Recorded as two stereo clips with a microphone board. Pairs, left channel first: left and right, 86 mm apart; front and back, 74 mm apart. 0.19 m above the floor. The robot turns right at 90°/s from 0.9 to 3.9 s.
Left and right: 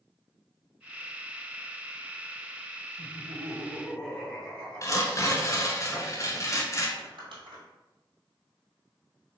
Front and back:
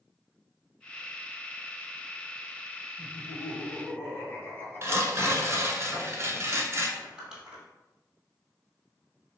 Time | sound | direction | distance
3.0 | laughter | 60° right | 1.8 m
4.8 | tearing paper | 135° left | 0.8 m
7.0 | crumpling | 100° right | 1.9 m